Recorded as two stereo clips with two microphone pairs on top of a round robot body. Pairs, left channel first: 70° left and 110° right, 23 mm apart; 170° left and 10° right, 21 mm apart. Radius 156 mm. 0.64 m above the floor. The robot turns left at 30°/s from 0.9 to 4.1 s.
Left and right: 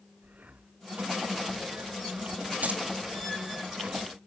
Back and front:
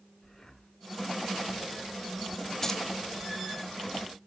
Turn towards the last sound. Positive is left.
turn(degrees=-160)